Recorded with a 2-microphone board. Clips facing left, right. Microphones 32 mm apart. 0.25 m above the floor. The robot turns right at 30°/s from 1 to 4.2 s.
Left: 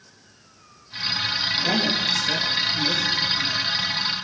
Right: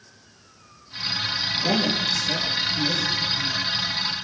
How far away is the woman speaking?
About 8.5 m.